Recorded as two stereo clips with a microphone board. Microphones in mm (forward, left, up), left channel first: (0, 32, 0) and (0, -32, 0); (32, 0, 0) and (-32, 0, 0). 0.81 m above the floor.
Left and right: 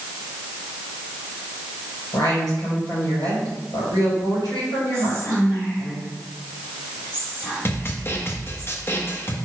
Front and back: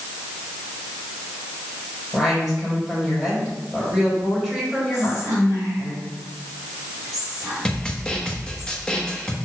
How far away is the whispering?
About 3.5 m.